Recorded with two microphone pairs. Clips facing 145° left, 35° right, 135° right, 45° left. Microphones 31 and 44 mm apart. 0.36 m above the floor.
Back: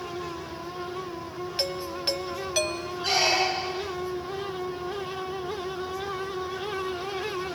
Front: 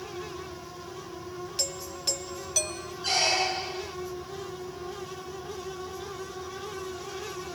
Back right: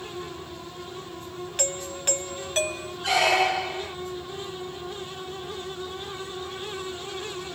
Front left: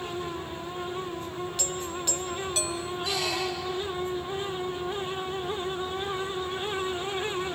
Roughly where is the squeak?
Behind right.